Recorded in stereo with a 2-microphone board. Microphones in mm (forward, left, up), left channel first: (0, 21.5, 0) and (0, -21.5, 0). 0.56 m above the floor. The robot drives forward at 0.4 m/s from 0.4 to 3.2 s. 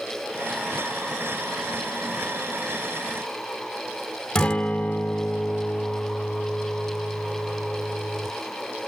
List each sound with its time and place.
4.3 s a guitar: 20° left (ahead or behind), 1.3 m